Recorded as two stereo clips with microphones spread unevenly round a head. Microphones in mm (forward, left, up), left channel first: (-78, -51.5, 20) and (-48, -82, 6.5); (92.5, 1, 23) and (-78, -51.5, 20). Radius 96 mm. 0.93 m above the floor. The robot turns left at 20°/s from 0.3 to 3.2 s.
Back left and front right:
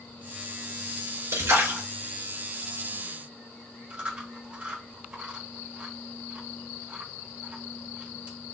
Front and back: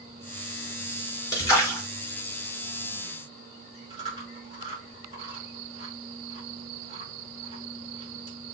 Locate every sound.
1.3 s a splash: 50° right, 3 m; by 1.8 s 65° right, 3 m
3.9 s chewing: 100° right, 3 m